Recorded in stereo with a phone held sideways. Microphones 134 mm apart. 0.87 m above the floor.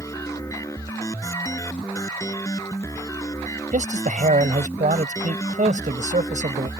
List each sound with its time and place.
0.0 s a machine running: 20° left (ahead or behind)
3.7 s a man speaking: 70° right (ahead or behind)